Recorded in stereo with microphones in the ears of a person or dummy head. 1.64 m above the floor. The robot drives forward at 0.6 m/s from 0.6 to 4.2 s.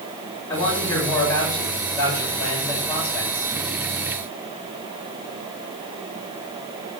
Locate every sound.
0.5 s a man speaking: 25° left (ahead or behind), 7 m; by 3.5 s 20° left (ahead or behind), 9 m